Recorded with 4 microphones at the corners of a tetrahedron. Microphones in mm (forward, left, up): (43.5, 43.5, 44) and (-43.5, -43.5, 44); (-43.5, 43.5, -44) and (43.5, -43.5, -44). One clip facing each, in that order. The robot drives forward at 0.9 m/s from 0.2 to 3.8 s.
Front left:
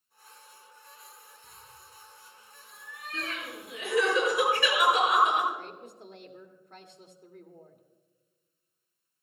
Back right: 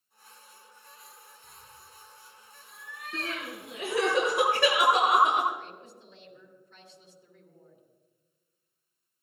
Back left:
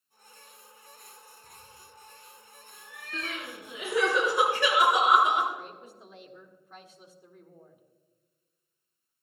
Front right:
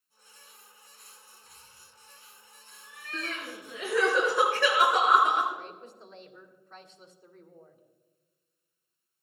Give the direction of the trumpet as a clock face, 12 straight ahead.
No trumpet in this recording.